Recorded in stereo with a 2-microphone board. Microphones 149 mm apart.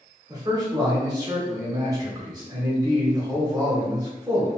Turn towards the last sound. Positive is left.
turn(degrees=-25)  # may be behind; listen again after turning